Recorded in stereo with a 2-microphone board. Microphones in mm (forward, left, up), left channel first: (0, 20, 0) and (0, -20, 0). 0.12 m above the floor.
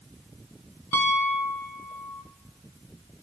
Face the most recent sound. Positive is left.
turn(degrees=60)  # may be behind; listen again after turning